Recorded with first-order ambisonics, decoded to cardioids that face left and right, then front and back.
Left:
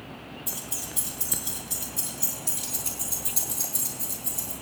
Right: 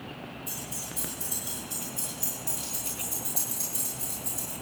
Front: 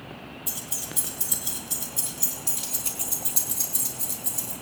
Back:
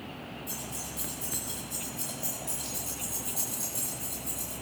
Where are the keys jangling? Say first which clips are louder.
Left 4 dB, front 7 dB; 20° left, 6.5 m; by 4.5 s 10° right, 8 m.